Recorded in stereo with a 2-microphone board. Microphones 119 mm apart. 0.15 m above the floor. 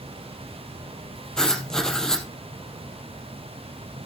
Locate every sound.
1.4 s writing: 5° left (ahead or behind), 3 m